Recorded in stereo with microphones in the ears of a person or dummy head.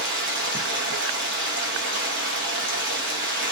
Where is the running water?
65° right (ahead or behind), 0.7 m.